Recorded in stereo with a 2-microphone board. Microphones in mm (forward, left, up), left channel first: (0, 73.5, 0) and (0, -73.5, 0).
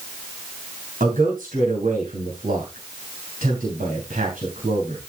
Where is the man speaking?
65° right (ahead or behind), 3 m.